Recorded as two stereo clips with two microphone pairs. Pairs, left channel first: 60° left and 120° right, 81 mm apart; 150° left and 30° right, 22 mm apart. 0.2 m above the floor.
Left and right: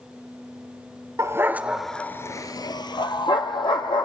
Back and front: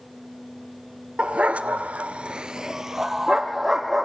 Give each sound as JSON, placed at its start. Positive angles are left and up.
{"t": 1.2, "sound": "a dog barking", "azimuth_deg": -70, "distance_m": 1.0}